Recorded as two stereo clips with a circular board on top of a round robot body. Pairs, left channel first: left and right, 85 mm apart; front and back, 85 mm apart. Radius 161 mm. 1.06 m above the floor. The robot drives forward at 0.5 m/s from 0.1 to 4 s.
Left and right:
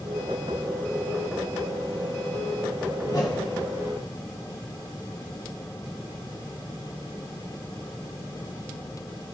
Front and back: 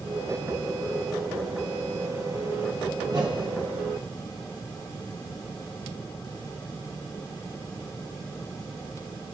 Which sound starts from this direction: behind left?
A whoosh, at 3.0 s.